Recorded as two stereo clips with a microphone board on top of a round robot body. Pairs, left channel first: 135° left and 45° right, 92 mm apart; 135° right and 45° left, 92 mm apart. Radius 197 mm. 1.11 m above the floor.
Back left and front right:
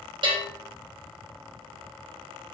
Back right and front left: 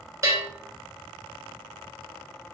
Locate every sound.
0.2 s a bell: 15° right, 3.5 m